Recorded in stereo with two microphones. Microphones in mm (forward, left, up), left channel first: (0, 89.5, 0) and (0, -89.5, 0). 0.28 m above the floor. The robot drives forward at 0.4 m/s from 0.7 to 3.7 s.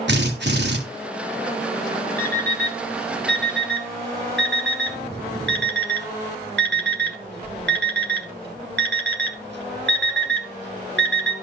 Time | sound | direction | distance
0.1 | a drill | 80° right | 3 m
2.2 | an alarm clock | 65° right (ahead or behind) | 2 m